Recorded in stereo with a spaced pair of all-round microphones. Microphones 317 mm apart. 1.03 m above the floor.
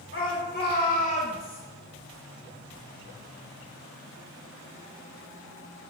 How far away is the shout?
About 3 m.